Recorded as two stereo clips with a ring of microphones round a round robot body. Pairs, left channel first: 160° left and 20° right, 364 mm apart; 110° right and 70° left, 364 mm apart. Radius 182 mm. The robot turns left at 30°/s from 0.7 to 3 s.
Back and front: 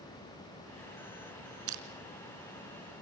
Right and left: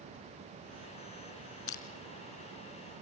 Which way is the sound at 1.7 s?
65° right.